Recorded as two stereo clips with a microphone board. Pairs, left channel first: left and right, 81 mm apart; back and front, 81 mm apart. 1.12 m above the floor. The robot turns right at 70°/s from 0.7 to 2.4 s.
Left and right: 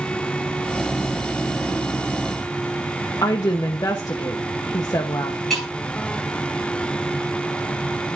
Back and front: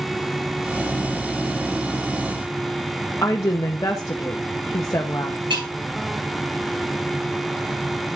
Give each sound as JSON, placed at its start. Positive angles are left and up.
{"t": 3.2, "sound": "a woman speaking", "azimuth_deg": 130, "distance_m": 0.9}
{"t": 5.5, "sound": "breaking glass", "azimuth_deg": 0, "distance_m": 5.5}